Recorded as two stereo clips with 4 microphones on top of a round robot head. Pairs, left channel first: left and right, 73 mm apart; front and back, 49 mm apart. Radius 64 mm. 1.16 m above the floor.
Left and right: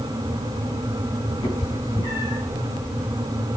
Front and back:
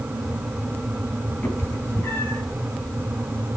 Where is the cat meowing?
45° left, 4.5 m.